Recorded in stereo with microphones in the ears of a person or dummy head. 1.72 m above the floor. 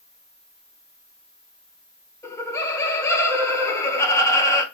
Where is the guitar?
I don't hear a guitar.